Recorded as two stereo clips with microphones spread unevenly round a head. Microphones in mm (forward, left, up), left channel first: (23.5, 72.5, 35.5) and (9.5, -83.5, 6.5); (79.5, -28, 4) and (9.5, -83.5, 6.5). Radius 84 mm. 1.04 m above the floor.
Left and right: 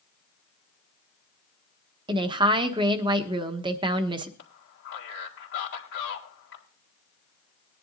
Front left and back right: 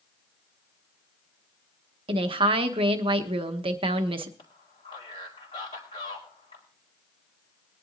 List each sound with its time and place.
2.1 s a woman speaking: 145° right, 1.1 m
4.4 s a man speaking: 85° left, 2.5 m